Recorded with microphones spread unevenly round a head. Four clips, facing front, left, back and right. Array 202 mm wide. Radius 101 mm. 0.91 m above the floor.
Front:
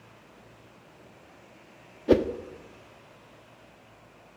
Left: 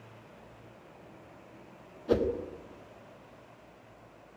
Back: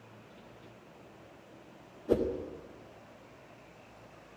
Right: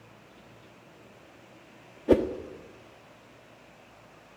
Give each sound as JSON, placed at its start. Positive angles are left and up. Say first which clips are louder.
{"t": 2.1, "sound": "a whoosh", "louder": "right 5 dB, front 7 dB", "azimuth_deg": -40, "distance_m": 1.5}